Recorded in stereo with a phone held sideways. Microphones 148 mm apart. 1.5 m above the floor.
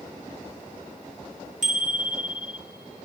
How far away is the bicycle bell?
About 2 m.